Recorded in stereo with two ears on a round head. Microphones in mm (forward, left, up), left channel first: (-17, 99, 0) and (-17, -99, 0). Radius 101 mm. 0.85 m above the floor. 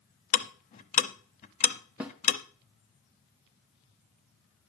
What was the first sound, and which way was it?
Ticking, 35° left (ahead or behind).